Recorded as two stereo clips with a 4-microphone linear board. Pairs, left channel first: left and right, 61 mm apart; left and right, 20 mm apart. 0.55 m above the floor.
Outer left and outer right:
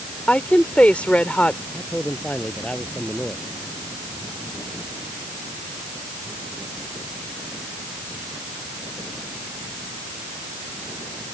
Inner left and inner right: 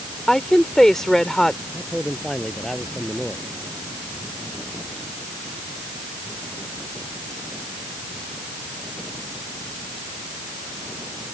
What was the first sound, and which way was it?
A woman speaking, 20° left (ahead or behind).